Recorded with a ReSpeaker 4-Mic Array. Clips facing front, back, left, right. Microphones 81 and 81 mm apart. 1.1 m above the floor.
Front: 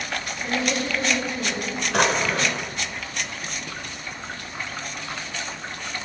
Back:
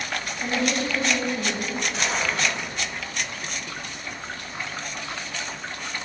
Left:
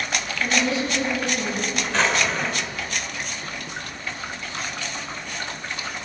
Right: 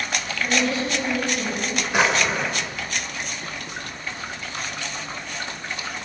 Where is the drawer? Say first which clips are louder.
Front 8 dB, right 2 dB; 15° right, 2.5 m.